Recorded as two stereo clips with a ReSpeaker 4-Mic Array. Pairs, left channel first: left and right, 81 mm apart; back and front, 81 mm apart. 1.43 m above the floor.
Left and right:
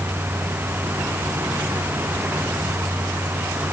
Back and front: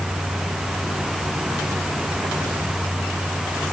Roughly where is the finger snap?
I don't hear a finger snap.